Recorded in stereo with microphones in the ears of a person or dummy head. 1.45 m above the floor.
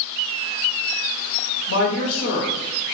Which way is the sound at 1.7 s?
65° left (ahead or behind).